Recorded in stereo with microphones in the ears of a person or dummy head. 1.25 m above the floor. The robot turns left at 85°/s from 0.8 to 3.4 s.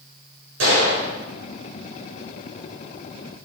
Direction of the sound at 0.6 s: 75° right (ahead or behind).